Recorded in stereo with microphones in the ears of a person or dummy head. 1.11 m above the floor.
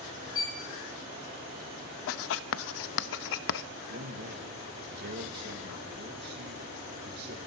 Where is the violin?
25° left (ahead or behind), 1.3 m.